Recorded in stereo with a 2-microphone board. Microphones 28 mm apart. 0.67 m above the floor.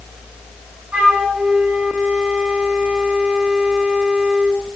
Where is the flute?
70° right (ahead or behind), 4 m.